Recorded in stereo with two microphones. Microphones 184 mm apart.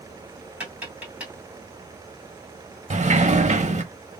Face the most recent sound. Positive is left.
turn(degrees=-40)  # may be behind; listen again after turning